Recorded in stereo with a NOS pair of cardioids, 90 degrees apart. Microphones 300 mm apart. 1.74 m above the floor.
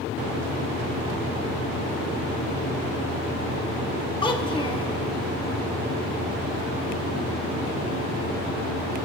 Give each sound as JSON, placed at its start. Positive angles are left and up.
{"t": 4.2, "sound": "a child speaking", "azimuth_deg": 15, "distance_m": 2.0}